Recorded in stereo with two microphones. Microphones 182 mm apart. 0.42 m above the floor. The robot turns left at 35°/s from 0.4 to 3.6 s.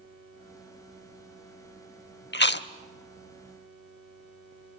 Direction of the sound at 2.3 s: 65° left (ahead or behind).